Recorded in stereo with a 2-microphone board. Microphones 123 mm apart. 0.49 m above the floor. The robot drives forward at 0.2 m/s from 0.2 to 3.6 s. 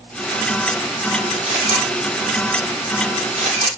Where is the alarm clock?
I don't hear an alarm clock.